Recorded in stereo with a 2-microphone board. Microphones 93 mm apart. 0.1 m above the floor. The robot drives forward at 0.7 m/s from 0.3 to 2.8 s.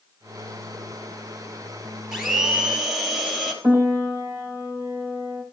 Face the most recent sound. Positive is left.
turn(degrees=-20)  # may be behind; listen again after turning